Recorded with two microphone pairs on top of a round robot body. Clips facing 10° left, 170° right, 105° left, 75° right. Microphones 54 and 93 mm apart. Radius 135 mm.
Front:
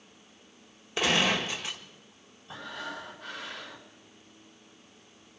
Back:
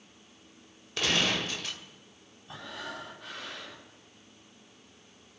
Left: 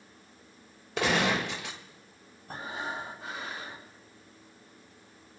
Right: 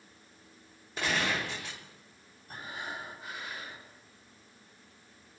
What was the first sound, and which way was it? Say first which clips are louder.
A gunshot: front 3 dB, left 5 dB; 85° left.